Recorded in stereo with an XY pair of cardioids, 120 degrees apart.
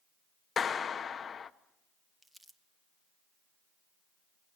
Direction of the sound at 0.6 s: 35° left.